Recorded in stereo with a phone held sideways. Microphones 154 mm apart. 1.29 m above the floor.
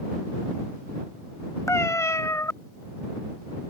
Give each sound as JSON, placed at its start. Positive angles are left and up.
{"t": 1.7, "sound": "a cat meowing", "side_deg": 20}